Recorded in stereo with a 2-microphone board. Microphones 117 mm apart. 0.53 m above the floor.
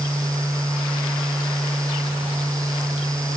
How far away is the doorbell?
I don't hear a doorbell.